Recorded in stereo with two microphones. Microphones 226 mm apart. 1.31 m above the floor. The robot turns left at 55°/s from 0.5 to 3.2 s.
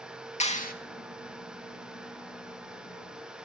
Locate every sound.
0.4 s a clap: 30° left (ahead or behind), 1.6 m; by 0.7 s 40° left (ahead or behind), 1.6 m